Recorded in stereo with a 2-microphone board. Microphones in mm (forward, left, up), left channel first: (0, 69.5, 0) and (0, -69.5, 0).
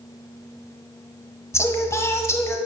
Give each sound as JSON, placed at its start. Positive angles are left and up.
{"t": 1.5, "sound": "singing", "side_deg": 20, "distance_m": 1.0}